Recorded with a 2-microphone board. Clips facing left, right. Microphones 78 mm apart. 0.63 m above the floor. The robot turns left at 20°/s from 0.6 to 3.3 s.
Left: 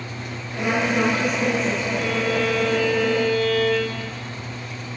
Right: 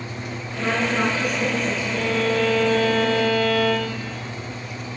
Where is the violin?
65° right (ahead or behind), 3.5 m; by 4.1 s 35° right (ahead or behind), 3.5 m.